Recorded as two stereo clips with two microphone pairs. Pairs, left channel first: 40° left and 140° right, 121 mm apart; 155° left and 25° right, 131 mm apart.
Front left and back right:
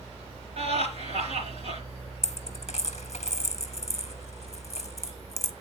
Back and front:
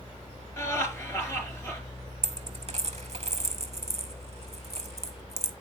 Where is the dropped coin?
10° left, 0.7 m.